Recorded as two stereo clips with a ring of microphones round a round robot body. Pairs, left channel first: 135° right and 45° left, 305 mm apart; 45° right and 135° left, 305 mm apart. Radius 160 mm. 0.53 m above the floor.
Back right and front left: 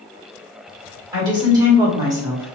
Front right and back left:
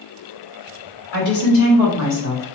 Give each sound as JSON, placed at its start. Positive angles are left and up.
{"t": 1.1, "sound": "a woman speaking", "azimuth_deg": -30, "distance_m": 1.9}